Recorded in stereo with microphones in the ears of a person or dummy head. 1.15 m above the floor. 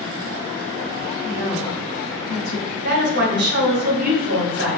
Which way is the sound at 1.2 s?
65° left (ahead or behind).